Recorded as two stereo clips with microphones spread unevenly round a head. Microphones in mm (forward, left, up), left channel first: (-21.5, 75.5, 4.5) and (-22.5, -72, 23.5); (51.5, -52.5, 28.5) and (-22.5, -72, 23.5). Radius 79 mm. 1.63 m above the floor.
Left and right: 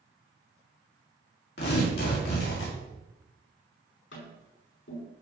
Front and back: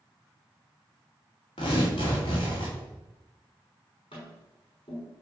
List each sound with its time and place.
1.6 s tearing paper: 65° left, 3.5 m
4.1 s tapping: 70° left, 5.5 m